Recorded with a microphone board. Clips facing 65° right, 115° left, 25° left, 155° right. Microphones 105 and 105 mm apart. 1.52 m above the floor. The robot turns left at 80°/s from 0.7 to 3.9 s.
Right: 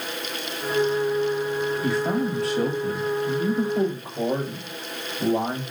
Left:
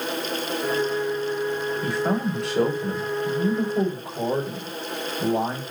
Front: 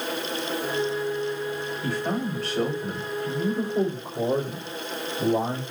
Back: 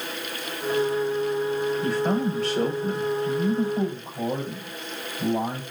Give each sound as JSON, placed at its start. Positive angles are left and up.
{"t": 1.8, "sound": "a man speaking", "azimuth_deg": 175, "distance_m": 4.0}